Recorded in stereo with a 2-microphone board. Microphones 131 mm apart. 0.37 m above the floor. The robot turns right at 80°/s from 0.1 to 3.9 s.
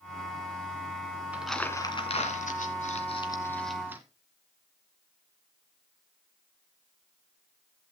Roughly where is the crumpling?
Centre.